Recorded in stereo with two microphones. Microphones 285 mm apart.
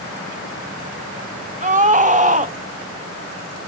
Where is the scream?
25° right (ahead or behind), 0.8 m.